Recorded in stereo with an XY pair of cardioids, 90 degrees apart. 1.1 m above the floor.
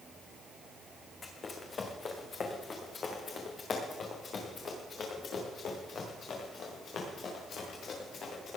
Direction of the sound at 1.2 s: 45° left.